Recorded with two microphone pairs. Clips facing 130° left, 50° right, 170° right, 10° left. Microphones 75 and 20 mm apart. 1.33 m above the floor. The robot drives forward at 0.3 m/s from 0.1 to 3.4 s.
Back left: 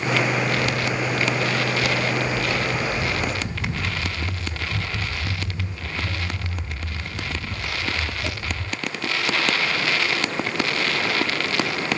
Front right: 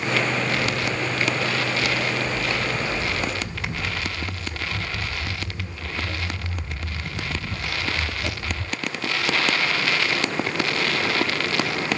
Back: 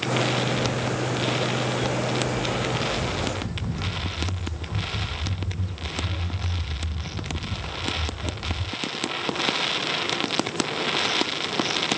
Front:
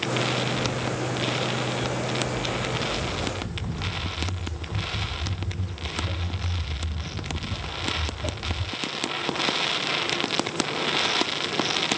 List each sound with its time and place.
0.6 s footsteps: straight behind, 2 m; by 8.6 s 40° left, 3.5 m